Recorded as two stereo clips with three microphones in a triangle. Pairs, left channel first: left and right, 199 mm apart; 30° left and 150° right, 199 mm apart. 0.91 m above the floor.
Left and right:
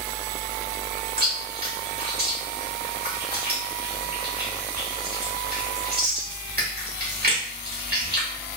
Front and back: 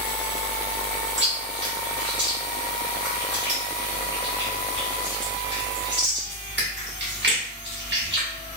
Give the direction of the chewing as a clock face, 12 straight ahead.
4 o'clock.